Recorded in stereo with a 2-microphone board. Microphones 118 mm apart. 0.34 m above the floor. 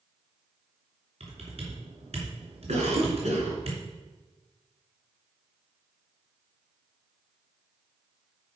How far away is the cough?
About 3 m.